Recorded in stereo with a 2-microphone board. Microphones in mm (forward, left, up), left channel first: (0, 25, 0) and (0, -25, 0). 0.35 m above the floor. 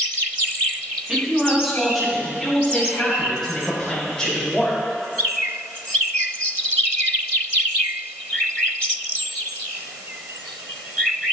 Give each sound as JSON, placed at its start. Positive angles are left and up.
{"t": 1.1, "sound": "a man speaking", "side_deg": -15, "distance_m": 3.0}